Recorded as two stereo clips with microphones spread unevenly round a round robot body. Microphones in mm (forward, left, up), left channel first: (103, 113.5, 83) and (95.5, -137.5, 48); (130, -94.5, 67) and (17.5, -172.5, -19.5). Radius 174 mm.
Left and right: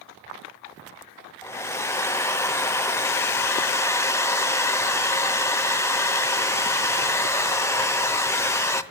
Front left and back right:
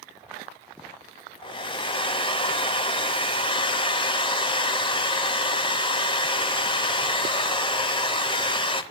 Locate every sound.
1.4 s a hair dryer: 15° left, 0.9 m